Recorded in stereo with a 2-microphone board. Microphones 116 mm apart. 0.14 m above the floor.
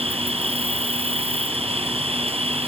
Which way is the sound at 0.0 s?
60° right (ahead or behind).